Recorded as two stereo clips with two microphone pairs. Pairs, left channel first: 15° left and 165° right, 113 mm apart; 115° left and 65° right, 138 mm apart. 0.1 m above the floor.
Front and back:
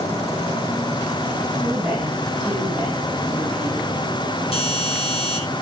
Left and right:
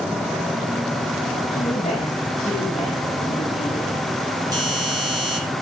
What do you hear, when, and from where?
1.5 s a woman speaking: 115° left, 7 m
4.5 s a doorbell: 5° right, 6 m